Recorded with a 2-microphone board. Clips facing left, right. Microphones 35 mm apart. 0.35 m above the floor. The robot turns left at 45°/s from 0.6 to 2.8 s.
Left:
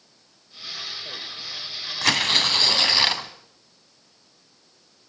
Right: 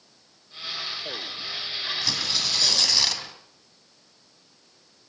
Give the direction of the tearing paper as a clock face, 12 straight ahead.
10 o'clock.